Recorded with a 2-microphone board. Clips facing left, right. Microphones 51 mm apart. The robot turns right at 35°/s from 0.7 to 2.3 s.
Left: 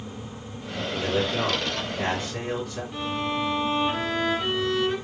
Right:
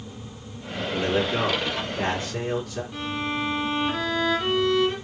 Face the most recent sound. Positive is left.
turn(degrees=5)  # may be behind; listen again after turning